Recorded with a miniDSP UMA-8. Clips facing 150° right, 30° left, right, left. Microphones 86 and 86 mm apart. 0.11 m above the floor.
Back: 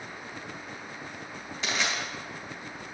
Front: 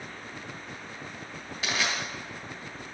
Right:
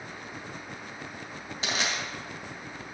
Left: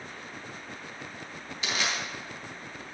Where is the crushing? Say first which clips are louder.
Even, even; 50° right, 2.5 m.